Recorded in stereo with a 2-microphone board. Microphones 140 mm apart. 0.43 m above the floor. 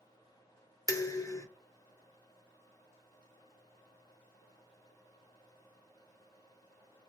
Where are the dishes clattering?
25° left (ahead or behind), 0.5 m.